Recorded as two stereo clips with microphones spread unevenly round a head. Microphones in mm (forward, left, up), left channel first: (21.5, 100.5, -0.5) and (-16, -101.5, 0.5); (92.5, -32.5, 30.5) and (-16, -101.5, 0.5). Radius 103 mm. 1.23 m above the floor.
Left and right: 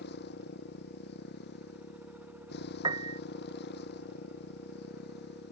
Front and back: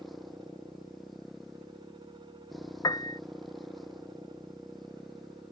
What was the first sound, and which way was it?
A motorcycle, 120° left.